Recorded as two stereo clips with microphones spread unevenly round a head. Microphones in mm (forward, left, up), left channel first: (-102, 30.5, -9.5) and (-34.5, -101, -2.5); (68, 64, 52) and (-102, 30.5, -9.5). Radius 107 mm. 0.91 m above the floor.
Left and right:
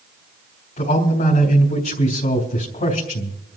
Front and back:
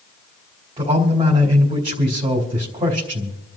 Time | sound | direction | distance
0.8 | a man speaking | 135° left | 3.5 m